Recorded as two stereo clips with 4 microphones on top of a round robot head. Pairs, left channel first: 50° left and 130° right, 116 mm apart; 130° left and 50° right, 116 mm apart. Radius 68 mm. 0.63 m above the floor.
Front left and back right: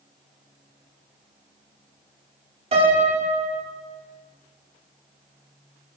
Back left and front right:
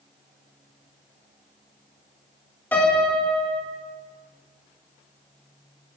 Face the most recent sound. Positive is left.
turn(degrees=-155)